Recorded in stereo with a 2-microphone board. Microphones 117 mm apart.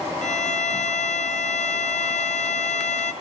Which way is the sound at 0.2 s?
80° left.